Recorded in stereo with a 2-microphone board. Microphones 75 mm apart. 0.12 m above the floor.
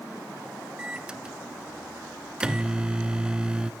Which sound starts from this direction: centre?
A microwave, at 0.8 s.